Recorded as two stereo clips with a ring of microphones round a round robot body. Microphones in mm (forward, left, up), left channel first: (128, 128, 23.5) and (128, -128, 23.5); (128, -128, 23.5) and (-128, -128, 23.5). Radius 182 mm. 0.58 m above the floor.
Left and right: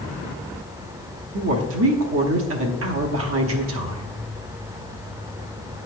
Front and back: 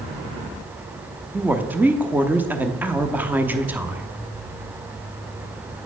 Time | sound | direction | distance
1.3 | a woman speaking | 100° right | 0.9 m